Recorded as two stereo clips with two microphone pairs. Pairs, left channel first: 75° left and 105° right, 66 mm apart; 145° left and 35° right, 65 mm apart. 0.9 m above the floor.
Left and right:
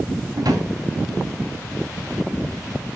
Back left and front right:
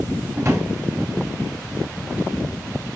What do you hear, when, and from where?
0.3 s a drawer: 80° right, 1.8 m